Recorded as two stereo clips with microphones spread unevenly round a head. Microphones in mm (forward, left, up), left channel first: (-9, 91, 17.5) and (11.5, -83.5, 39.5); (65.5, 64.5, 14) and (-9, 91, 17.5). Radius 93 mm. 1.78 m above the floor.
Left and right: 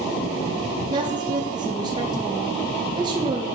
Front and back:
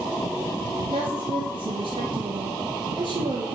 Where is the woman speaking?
150° right, 0.8 m.